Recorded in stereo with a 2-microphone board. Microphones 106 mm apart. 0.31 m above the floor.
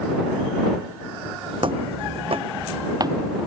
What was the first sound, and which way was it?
Footsteps, 55° right (ahead or behind).